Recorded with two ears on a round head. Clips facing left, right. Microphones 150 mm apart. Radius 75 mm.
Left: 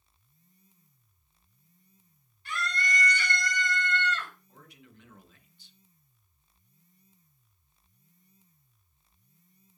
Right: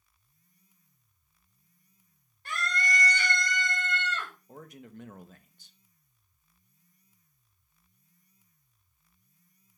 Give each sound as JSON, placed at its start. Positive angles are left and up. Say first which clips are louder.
{"t": 2.5, "sound": "a scream", "louder": "right 1 dB", "side_deg": -40, "distance_m": 2.5}
{"t": 4.5, "sound": "a man speaking", "louder": "right 9 dB", "side_deg": -40, "distance_m": 1.0}